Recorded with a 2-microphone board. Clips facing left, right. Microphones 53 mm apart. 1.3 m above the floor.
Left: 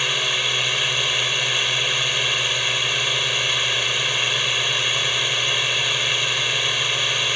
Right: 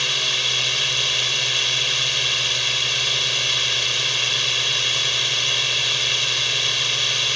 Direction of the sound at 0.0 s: 15° left (ahead or behind).